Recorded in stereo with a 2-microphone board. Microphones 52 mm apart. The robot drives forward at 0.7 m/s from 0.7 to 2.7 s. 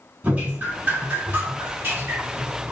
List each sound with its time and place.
0.2 s dripping: 25° right (ahead or behind), 2.5 m; by 2.7 s 50° right (ahead or behind), 1.5 m